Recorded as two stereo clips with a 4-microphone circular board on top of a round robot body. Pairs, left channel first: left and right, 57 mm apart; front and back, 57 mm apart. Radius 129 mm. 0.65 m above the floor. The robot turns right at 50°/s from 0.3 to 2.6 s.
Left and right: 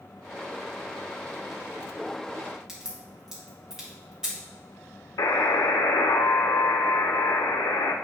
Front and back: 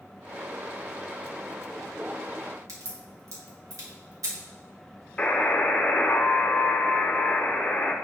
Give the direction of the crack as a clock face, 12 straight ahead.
6 o'clock.